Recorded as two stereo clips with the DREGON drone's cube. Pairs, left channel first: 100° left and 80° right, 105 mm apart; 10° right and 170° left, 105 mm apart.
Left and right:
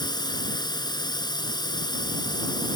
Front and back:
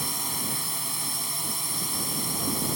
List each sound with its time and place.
0.0 s a drone: 80° left